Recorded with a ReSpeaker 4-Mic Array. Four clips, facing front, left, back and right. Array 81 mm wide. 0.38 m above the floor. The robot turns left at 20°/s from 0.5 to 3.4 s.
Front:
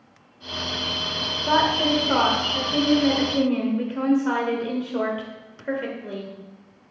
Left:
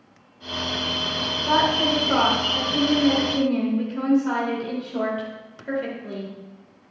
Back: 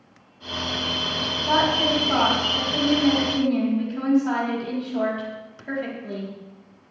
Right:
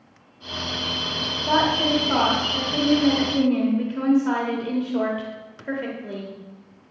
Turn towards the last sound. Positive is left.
turn(degrees=-15)